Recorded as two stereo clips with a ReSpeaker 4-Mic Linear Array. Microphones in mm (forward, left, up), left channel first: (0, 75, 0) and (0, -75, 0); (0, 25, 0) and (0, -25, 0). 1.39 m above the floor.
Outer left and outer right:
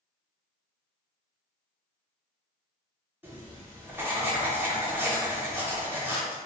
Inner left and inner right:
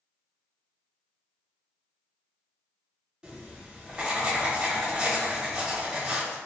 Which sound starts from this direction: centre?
Writing, at 3.2 s.